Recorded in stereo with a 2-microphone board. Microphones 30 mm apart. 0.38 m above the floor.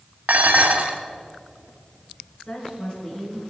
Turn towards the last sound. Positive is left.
turn(degrees=30)  # may be behind; listen again after turning